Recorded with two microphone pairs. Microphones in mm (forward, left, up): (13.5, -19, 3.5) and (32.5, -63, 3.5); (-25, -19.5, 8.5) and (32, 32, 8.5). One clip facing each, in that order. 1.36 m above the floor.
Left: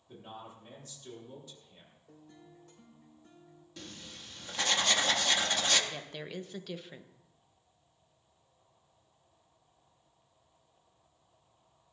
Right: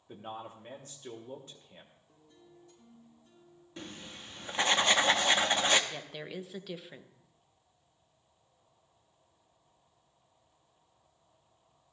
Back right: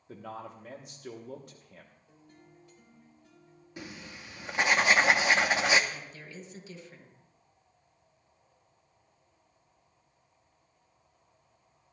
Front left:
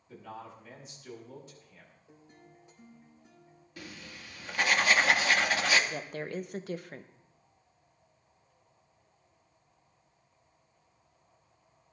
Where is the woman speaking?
15° left, 0.7 m.